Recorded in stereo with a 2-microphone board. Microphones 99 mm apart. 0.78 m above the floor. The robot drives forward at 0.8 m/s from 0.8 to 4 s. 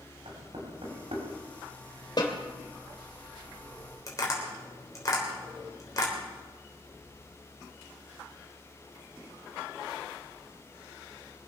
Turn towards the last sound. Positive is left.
turn(degrees=35)  # may be behind; listen again after turning